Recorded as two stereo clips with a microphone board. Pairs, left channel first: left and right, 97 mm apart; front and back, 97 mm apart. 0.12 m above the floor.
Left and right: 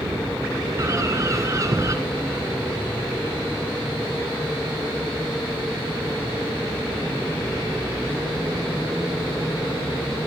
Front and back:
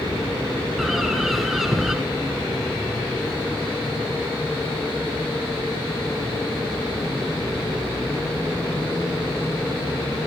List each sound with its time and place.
0.8 s a bird: 95° right, 1.6 m